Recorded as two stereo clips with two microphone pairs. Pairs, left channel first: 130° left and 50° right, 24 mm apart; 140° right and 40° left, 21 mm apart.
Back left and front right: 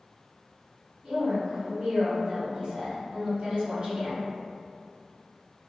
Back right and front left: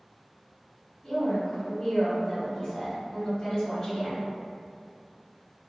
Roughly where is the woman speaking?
Right.